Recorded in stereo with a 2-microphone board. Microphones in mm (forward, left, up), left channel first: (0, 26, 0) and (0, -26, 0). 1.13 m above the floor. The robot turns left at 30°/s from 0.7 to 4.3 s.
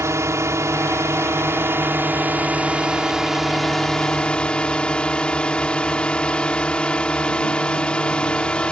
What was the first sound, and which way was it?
A drone, 90° right.